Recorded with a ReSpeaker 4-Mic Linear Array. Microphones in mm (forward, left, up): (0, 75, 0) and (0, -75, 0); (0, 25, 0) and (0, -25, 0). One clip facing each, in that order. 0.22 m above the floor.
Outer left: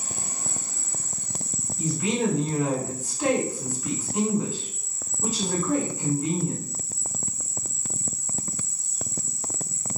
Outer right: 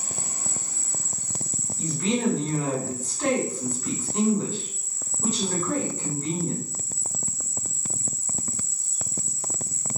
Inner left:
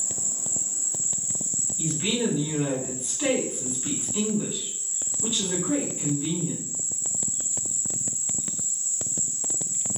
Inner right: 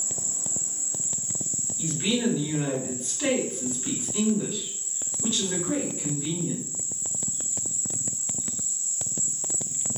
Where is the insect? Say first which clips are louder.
Even, even; 65° left (ahead or behind), 1.6 m.